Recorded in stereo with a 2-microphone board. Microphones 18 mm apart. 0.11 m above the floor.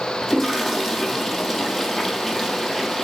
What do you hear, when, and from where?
0.2 s a toilet flushing: 20° left (ahead or behind), 1.9 m